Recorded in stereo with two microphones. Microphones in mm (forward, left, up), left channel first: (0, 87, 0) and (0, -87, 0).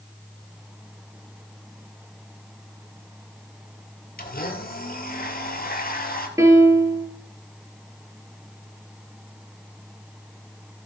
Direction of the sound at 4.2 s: 55° left (ahead or behind).